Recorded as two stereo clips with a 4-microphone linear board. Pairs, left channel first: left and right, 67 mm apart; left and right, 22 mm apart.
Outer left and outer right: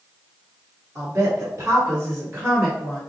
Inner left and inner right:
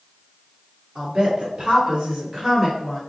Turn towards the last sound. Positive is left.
turn(degrees=-30)  # may be behind; listen again after turning